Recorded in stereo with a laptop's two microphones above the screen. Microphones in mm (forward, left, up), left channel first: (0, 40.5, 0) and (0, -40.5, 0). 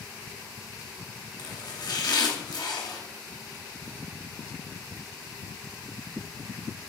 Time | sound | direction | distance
1.4 | chopping | 65° left (ahead or behind) | 2.5 m